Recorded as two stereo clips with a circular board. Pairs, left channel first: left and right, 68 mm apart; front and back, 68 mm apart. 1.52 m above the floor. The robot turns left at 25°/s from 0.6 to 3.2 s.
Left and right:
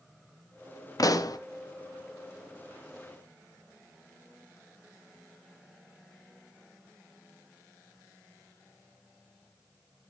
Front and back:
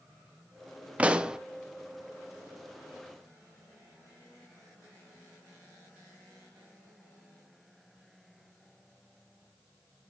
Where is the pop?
110° left, 0.6 m; by 1.4 s 100° left, 0.6 m.